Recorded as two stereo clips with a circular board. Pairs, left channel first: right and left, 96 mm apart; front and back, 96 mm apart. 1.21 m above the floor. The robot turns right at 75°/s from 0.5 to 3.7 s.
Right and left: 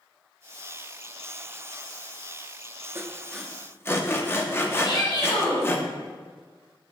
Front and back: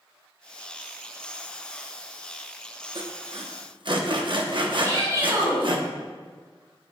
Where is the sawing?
150° left, 0.9 m; by 5.8 s 155° right, 0.9 m.